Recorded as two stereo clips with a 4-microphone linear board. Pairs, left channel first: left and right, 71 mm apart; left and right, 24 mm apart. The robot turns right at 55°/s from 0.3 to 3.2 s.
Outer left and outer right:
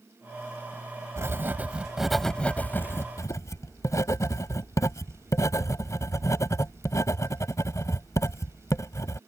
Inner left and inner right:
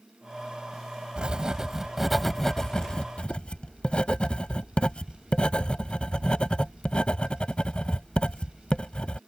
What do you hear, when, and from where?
1.2 s writing: 45° right (ahead or behind); by 9.2 s 50° left (ahead or behind)